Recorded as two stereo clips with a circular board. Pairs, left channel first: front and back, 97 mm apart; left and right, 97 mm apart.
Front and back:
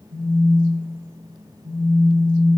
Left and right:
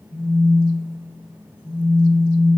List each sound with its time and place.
0.1 s a phone buzzing: 80° left, 3 m